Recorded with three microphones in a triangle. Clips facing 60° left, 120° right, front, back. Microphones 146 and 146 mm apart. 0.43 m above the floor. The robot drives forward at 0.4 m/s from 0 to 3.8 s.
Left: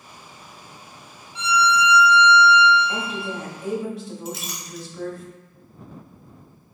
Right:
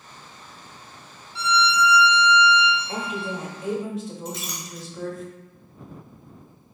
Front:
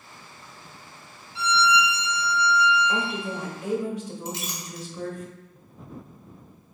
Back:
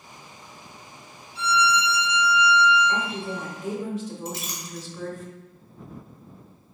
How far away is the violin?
About 1.4 m.